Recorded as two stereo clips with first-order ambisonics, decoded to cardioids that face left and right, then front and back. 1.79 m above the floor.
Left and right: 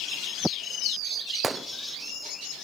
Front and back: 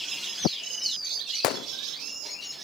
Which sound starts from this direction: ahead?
A gunshot, at 1.4 s.